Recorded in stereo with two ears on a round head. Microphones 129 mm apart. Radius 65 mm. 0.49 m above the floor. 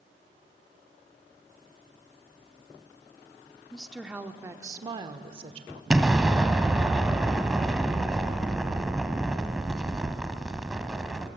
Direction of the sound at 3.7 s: 5° left (ahead or behind).